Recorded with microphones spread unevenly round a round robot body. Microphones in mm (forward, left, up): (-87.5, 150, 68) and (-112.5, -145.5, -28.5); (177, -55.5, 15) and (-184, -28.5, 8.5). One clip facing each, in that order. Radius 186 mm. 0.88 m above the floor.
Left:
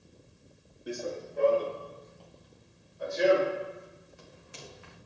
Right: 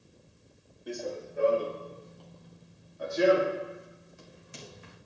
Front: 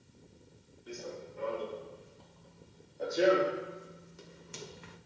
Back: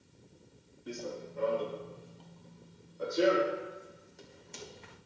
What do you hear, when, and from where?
0.9 s running footsteps: 160° left, 1.9 m; by 5.0 s 75° right, 3.5 m